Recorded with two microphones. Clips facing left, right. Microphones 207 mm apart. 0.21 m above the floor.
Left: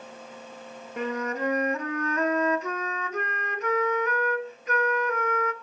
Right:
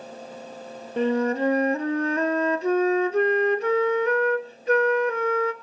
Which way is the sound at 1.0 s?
30° right (ahead or behind).